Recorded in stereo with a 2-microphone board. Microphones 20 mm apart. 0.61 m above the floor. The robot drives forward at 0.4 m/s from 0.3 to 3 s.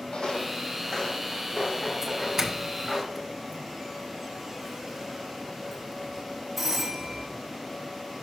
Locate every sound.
0.1 s footsteps: 60° left (ahead or behind), 1.4 m; by 3.0 s 5° left (ahead or behind), 4 m
2.0 s a doorbell: 20° right (ahead or behind), 1.0 m; by 7.3 s 15° right (ahead or behind), 1.1 m